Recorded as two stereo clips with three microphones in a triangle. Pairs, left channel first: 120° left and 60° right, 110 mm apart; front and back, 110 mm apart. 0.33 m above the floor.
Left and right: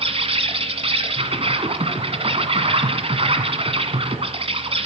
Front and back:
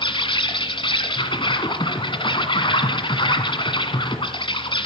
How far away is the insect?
About 1.7 m.